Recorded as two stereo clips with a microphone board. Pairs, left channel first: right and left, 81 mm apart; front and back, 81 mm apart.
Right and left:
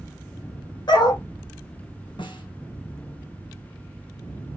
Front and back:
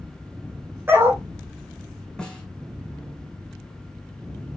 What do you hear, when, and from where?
0.9 s a dog barking: 120° right, 2.5 m
2.2 s a snare drum: 80° right, 5 m